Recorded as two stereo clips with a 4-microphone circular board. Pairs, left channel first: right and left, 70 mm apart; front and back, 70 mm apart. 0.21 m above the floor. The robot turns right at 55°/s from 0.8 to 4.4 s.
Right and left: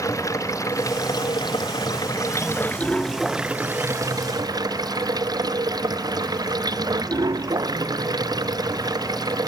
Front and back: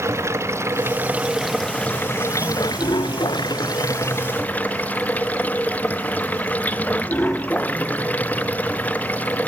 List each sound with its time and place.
0.0 s running water: 130° right; by 9.5 s 65° left